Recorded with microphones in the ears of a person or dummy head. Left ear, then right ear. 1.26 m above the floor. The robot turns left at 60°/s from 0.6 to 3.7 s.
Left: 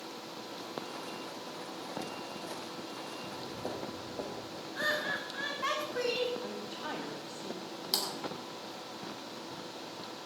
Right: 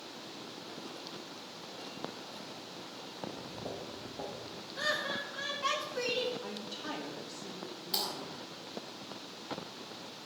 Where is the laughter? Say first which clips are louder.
Left 1 dB; 30° left (ahead or behind), 2.5 m.